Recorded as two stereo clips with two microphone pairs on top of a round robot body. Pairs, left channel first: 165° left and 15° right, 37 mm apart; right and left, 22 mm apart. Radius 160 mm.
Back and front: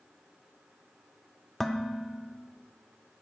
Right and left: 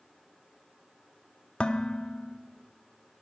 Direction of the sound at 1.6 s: 110° right.